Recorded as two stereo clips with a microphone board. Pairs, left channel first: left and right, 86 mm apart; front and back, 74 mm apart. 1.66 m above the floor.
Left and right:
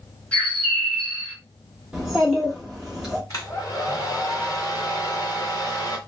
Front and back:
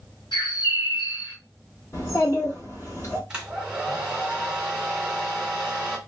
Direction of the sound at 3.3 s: 105° left.